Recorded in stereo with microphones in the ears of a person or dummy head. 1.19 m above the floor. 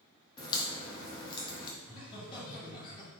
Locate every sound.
0.4 s a crack: 25° left (ahead or behind), 0.7 m
1.8 s laughter: 25° left (ahead or behind), 1.8 m